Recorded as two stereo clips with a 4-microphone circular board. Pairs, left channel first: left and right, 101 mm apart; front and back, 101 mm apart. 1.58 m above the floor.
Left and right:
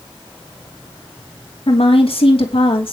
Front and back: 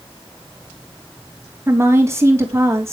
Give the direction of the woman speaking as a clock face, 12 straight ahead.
8 o'clock.